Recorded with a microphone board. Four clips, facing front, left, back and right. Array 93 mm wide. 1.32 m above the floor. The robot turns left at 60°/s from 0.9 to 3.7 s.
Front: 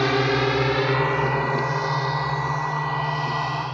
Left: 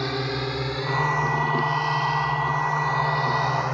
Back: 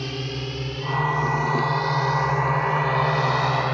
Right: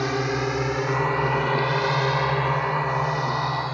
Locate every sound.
0.0 s a drone: 15° right; by 3.8 s 160° left